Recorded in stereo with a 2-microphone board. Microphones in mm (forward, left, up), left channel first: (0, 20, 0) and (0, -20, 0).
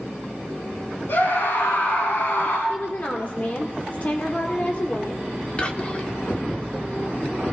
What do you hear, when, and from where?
1.1 s a scream: 75° left (ahead or behind), 5.5 m; by 2.6 s 80° left, 5 m
2.7 s a woman speaking: 40° left (ahead or behind), 1.5 m
5.6 s whispering: 30° left (ahead or behind), 1.3 m